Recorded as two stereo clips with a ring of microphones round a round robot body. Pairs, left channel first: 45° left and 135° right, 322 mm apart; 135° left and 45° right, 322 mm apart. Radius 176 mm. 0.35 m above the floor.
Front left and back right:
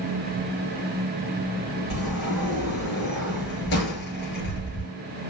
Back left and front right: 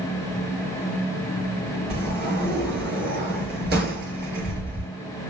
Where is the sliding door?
15° left, 6 m.